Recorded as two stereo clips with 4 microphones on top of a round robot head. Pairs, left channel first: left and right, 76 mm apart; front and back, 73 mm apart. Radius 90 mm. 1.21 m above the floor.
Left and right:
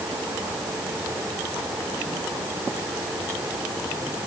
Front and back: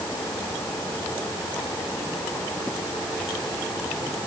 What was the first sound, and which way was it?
Only background noise.